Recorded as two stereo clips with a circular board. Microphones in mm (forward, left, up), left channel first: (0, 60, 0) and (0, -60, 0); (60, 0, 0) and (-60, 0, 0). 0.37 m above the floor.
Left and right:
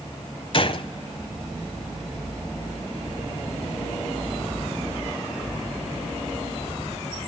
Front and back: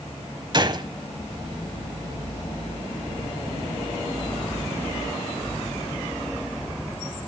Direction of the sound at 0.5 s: 130° left.